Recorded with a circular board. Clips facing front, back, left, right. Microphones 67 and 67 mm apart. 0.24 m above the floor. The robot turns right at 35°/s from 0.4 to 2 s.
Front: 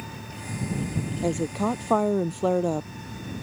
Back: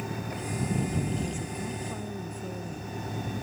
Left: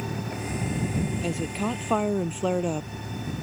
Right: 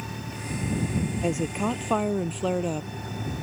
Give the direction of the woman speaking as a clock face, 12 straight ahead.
1 o'clock.